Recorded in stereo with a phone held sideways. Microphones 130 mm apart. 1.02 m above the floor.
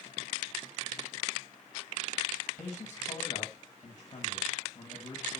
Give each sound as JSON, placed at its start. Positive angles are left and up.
{"t": 2.6, "sound": "a man speaking", "side_deg": 45, "distance_m": 1.5}